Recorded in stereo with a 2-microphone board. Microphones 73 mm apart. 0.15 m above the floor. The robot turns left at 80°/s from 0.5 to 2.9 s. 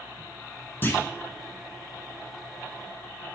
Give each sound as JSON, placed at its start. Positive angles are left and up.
{"t": 0.8, "sound": "a clunk", "side_deg": 30, "distance_m": 1.2}